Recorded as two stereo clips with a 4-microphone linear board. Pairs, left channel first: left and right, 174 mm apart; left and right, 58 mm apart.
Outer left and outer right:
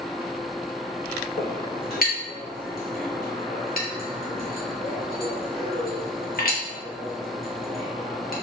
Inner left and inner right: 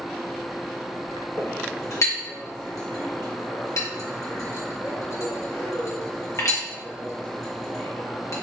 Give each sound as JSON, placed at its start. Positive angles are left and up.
{"t": 1.4, "sound": "a clink", "side_deg": 60, "distance_m": 0.9}